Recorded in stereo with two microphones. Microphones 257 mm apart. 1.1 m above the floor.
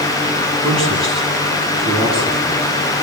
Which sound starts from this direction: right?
A man speaking, at 0.6 s.